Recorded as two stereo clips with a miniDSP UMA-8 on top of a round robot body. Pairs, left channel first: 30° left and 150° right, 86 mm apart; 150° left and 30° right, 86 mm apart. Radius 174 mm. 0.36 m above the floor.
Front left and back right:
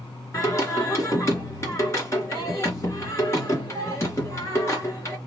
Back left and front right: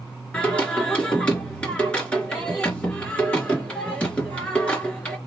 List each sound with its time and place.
0.3 s singing: 80° left, 2.5 m